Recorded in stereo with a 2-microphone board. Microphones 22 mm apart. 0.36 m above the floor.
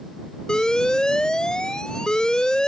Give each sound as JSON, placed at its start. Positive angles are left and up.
{"t": 0.5, "sound": "an alarm", "side_deg": 40}